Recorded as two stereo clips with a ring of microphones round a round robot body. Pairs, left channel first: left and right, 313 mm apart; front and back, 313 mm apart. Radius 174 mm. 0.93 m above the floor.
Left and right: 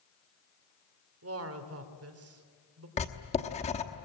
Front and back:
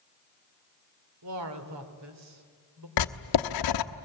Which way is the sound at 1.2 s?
135° right.